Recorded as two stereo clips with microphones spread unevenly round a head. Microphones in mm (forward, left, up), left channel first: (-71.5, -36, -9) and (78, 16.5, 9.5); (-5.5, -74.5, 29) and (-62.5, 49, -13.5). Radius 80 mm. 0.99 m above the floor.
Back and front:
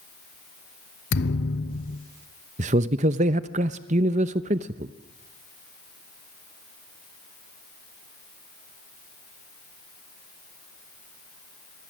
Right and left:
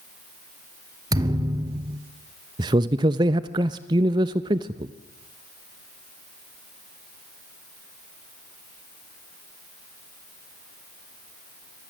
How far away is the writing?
I don't hear writing.